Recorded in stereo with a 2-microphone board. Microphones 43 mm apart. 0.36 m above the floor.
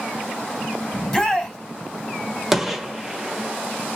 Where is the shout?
15° left (ahead or behind), 3 m.